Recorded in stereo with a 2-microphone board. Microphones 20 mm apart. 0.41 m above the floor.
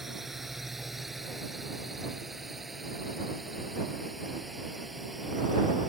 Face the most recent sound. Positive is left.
turn(degrees=-5)  # may be behind; listen again after turning